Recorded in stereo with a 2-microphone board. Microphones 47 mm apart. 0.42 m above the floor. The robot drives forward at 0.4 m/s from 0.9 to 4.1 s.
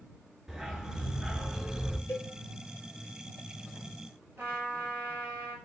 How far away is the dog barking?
About 1.3 m.